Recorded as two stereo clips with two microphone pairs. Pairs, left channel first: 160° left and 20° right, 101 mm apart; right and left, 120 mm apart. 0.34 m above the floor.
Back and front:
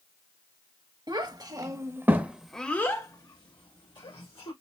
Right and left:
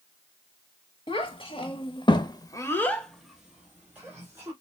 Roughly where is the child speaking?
Ahead right.